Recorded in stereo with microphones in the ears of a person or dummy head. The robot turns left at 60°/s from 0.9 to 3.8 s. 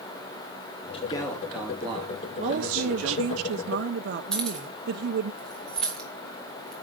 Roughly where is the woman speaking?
Ahead right.